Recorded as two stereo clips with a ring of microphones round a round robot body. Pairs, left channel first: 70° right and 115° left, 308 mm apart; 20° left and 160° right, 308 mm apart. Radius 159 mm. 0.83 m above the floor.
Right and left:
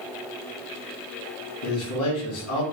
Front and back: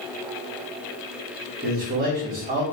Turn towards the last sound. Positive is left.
turn(degrees=-100)